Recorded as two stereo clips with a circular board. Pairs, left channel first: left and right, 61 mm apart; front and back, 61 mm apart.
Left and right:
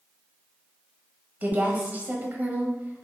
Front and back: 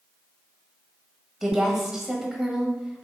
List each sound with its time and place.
1.4 s a woman speaking: 105° right, 1.0 m